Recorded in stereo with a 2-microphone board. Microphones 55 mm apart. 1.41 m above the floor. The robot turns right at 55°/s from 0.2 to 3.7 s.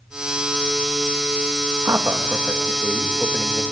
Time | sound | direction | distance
1.9 | a man speaking | 75° right | 2.5 m